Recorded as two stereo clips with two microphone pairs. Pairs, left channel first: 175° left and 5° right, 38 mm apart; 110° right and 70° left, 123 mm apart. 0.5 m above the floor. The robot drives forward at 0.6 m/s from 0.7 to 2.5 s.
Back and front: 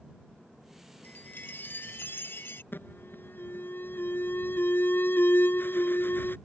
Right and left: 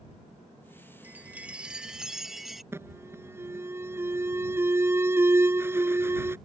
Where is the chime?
145° left; by 2.6 s 160° left.